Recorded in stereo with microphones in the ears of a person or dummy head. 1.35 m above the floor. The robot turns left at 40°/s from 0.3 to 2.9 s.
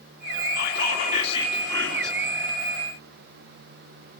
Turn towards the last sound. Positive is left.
turn(degrees=-25)